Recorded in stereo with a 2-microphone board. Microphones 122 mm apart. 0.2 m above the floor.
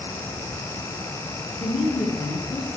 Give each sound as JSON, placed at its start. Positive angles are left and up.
{"t": 1.6, "sound": "a woman speaking", "side_deg": 35, "distance_m": 3.5}